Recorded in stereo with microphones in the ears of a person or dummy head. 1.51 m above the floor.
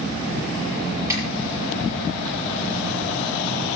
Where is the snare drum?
15° right (ahead or behind), 6.5 m.